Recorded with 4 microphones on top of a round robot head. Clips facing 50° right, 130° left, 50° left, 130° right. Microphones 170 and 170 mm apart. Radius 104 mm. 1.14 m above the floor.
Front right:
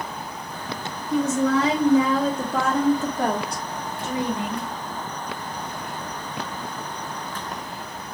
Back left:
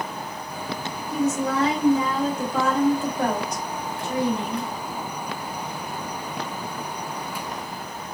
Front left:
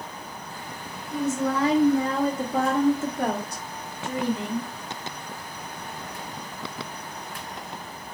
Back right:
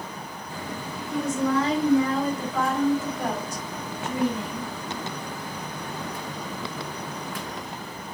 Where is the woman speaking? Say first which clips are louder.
Front right 3 dB, back right 1 dB; 40° right, 1.5 m; by 4.7 s 30° left, 2.0 m.